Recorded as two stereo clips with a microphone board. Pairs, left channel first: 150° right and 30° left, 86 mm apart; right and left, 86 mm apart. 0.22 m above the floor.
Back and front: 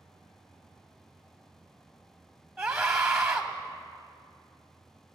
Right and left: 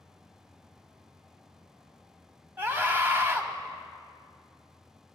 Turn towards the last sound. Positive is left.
turn(degrees=110)